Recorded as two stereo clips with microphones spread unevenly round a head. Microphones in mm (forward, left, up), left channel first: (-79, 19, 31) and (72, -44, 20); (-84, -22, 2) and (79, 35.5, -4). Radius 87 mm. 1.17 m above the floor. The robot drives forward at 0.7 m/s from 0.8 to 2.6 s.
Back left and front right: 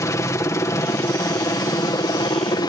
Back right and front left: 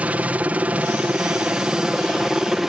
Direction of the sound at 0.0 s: 95° left.